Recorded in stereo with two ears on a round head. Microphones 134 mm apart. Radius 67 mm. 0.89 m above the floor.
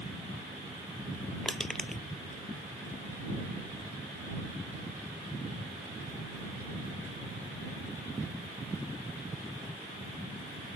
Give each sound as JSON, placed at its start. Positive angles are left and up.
{"t": 1.4, "sound": "crushing", "side_deg": 5}